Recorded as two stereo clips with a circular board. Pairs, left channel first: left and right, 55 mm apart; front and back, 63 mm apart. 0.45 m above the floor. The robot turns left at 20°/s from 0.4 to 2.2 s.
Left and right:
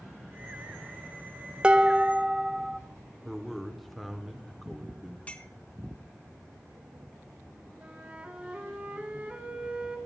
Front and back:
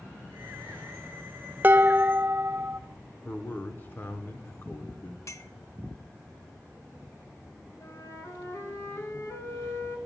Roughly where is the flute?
Ahead right.